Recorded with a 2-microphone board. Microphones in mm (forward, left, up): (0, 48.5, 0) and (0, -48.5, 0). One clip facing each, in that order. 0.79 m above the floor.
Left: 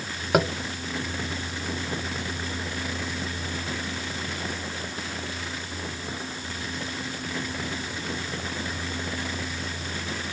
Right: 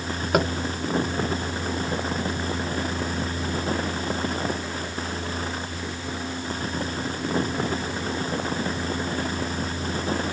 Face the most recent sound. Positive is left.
turn(degrees=0)  # may be behind; listen again after turning